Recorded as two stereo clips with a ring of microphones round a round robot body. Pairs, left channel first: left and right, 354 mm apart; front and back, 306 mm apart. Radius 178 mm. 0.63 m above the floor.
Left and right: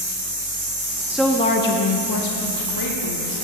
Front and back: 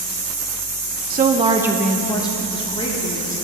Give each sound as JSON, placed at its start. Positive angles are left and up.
{"t": 1.1, "sound": "a woman speaking", "azimuth_deg": -170, "distance_m": 0.6}